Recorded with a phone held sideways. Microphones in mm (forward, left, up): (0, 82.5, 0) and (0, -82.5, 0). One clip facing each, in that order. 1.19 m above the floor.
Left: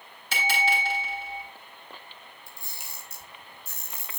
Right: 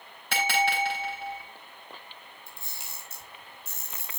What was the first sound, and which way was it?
A bell, 60° right (ahead or behind).